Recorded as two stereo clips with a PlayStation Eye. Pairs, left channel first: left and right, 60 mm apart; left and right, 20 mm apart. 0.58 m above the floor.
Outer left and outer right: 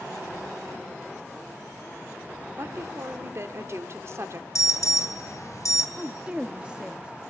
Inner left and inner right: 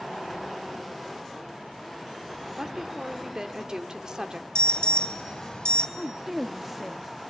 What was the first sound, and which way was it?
A woman speaking, 45° right (ahead or behind).